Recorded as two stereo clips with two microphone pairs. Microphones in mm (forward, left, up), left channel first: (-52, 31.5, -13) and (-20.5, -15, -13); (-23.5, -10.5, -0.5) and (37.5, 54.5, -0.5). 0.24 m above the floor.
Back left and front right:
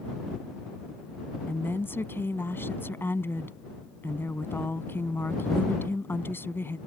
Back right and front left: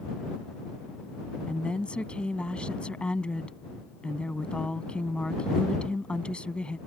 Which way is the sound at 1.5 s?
150° left.